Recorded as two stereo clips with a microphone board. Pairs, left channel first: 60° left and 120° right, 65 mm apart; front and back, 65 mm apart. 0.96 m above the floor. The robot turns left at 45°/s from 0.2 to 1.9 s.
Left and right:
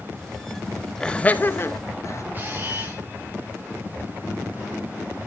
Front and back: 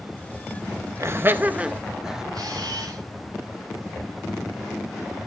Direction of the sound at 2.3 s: Straight behind.